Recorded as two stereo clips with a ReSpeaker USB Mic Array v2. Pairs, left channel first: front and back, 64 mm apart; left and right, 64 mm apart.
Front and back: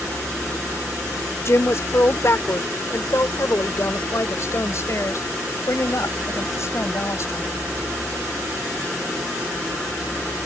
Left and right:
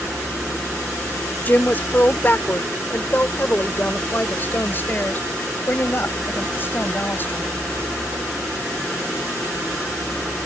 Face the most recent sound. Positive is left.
turn(degrees=35)